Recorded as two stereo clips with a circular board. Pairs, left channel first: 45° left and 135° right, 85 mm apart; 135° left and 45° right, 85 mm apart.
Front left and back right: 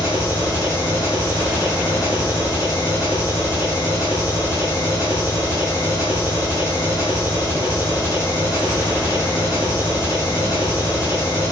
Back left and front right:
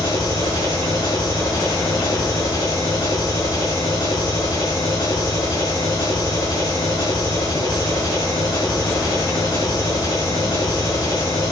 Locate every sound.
0.0 s an engine running: 95° left, 6.5 m